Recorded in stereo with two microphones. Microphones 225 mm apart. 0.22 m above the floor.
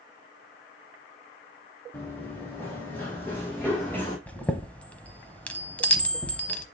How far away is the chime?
About 0.9 m.